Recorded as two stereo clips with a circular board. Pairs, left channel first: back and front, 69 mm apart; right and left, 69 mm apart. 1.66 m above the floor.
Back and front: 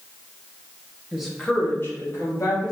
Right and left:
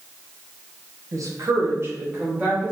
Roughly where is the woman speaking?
Left.